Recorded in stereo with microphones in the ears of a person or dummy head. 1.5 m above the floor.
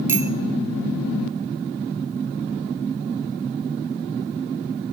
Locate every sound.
0.1 s a bicycle bell: 10° right (ahead or behind), 2 m